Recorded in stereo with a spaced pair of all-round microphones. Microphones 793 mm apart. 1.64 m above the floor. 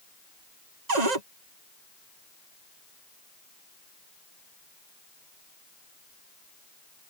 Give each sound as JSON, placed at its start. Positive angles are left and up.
{"t": 0.9, "sound": "a cupboard door", "side_deg": -60}